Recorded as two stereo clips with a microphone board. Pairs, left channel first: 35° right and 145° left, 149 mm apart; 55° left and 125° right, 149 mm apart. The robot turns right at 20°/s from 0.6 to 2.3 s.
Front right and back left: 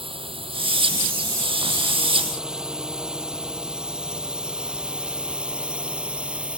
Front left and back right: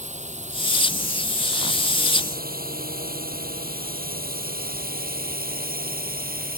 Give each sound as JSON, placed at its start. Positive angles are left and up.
{"t": 0.0, "sound": "a drone", "azimuth_deg": -160}